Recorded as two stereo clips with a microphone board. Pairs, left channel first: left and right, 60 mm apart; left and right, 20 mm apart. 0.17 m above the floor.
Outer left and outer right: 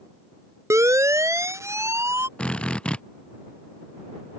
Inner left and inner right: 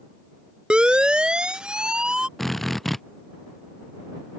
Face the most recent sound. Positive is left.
turn(degrees=15)  # may be behind; listen again after turning